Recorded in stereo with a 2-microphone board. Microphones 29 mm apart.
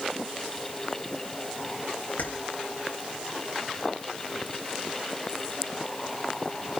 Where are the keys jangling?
70° left (ahead or behind), 3.5 m.